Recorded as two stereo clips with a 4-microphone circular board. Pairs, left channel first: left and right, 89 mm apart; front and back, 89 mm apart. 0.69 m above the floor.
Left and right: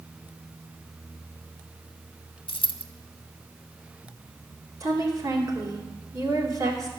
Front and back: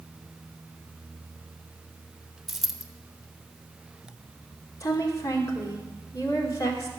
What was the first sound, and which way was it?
A dropped coin, 90° left.